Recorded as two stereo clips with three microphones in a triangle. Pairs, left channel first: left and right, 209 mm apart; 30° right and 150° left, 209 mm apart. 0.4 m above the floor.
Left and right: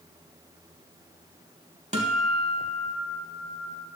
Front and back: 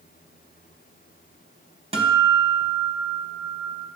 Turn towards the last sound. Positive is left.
turn(degrees=-145)